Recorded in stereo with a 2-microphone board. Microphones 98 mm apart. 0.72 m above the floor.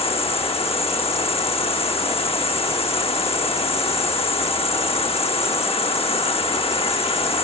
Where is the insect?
75° left (ahead or behind).